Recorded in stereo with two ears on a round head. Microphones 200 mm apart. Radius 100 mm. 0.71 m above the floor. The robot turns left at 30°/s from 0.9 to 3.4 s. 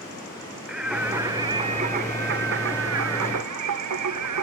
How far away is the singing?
About 1.0 m.